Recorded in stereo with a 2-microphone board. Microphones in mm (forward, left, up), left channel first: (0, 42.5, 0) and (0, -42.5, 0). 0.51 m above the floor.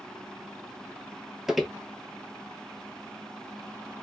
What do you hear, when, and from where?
1.5 s footsteps: 5° right (ahead or behind), 0.5 m